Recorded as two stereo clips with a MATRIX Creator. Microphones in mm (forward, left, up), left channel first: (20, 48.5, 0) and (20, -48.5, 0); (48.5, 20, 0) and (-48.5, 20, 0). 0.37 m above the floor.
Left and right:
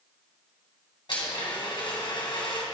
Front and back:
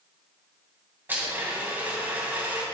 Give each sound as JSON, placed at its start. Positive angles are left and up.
{"t": 1.1, "sound": "a blender", "azimuth_deg": 115, "distance_m": 2.5}